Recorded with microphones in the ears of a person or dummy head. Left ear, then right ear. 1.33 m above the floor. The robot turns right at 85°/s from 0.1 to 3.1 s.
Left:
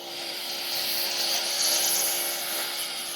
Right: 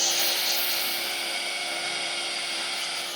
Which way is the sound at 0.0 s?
55° right (ahead or behind).